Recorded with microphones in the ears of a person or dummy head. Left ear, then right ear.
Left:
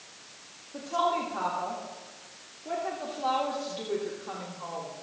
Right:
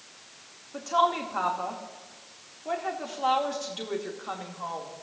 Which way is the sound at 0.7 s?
45° right (ahead or behind).